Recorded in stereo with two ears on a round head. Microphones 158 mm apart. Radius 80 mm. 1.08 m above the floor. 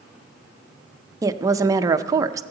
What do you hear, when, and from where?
1.2 s a woman speaking: 20° right (ahead or behind), 0.6 m